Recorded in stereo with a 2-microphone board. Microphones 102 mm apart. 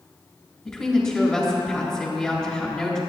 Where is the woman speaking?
5° left (ahead or behind), 3.5 m.